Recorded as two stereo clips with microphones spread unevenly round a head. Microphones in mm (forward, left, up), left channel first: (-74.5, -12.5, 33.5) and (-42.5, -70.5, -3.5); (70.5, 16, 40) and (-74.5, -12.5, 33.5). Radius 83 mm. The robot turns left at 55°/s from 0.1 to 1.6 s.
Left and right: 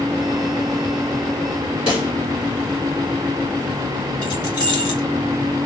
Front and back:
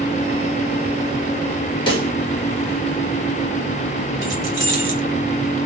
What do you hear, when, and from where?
1.9 s a pop: 70° left, 1.3 m
4.2 s keys jangling: 125° left, 1.9 m